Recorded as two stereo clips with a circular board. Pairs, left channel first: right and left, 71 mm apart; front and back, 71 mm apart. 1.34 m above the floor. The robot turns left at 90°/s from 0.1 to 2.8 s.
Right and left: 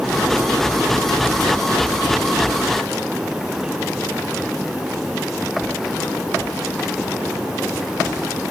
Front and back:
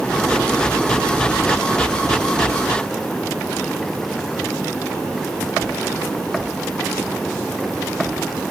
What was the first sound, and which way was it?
Only background noise.